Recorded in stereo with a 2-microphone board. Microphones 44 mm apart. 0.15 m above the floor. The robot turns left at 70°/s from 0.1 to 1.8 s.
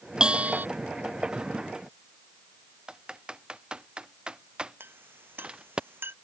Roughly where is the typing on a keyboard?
Centre.